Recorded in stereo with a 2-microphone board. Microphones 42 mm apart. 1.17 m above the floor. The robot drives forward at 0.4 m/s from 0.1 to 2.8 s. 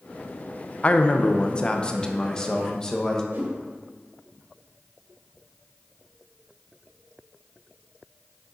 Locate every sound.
0.8 s a man speaking: 35° left (ahead or behind), 0.6 m; by 3.2 s 15° left (ahead or behind), 1.2 m
3.3 s a whoosh: 65° right (ahead or behind), 3 m